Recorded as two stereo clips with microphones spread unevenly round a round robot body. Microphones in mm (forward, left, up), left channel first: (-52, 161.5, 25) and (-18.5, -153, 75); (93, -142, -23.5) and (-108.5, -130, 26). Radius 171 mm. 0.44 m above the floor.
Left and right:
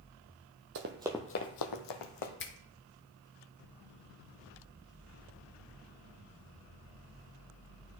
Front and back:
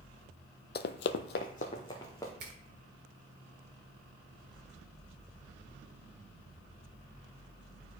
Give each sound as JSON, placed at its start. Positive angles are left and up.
{"t": 0.8, "sound": "running footsteps", "azimuth_deg": -50, "distance_m": 0.7}
{"t": 2.4, "sound": "a finger snap", "azimuth_deg": 125, "distance_m": 0.9}